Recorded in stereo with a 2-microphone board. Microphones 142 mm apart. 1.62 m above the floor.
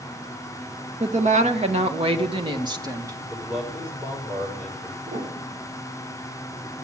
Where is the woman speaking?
60° right (ahead or behind), 1.9 m; by 3.2 s 20° right (ahead or behind), 1.7 m.